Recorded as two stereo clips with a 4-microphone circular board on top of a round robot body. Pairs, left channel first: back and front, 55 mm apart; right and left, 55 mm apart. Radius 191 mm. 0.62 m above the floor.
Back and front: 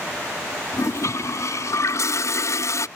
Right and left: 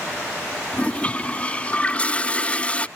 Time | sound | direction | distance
0.7 | a toilet flushing | 155° right | ?